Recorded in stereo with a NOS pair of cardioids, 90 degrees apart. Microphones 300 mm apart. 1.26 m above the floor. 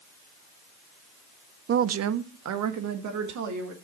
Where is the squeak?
No squeak in this recording.